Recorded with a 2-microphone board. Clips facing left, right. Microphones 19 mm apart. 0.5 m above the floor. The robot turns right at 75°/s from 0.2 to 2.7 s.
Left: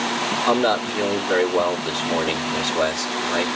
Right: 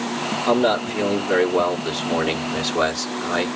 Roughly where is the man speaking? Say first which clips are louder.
Right 2 dB; centre.